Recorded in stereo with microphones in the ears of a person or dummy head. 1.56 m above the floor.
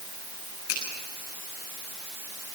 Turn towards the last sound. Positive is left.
turn(degrees=50)  # may be behind; listen again after turning